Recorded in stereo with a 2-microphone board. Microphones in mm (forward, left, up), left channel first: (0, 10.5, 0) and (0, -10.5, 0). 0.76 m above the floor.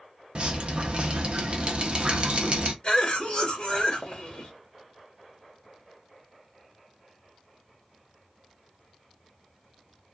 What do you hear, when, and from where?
0.3 s dripping: 50° right (ahead or behind), 0.6 m
2.8 s a cough: 35° left (ahead or behind), 1.1 m